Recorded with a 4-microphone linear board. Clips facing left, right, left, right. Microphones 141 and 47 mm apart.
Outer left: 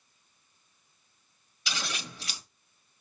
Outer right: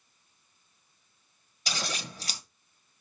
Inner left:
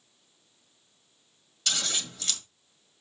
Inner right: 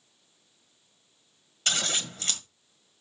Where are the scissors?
40° right (ahead or behind), 1.7 m.